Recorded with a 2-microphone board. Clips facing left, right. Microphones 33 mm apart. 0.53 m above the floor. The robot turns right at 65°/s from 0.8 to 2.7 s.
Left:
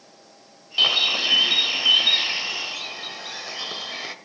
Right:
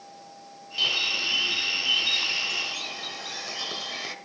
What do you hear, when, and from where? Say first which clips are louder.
0.8 s a bird: left 6 dB; 50° left, 1.6 m; by 4.2 s 170° left, 1.6 m